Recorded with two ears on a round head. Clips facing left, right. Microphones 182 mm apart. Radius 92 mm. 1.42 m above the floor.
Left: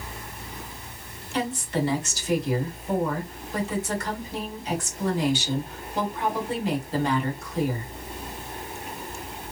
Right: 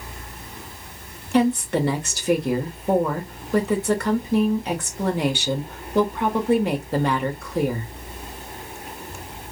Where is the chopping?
I don't hear chopping.